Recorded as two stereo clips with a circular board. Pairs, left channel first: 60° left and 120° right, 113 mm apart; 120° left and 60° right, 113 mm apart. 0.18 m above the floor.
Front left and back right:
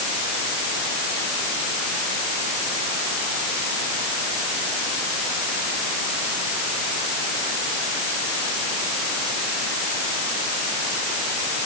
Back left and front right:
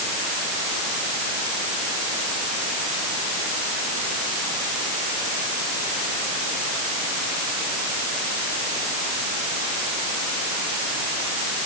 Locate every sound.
Only background noise.